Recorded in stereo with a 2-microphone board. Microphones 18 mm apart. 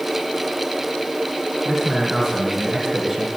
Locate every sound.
1.6 s a man speaking: 20° right (ahead or behind), 4 m